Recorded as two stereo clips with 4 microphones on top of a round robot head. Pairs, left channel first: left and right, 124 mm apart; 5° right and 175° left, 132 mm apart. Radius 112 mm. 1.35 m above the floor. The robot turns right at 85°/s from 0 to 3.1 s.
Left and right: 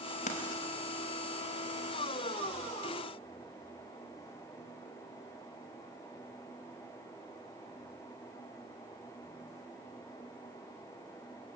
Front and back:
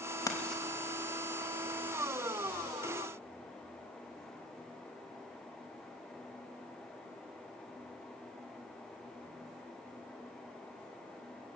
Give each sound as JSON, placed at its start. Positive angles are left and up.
{"t": 0.3, "sound": "writing", "azimuth_deg": 60, "distance_m": 2.5}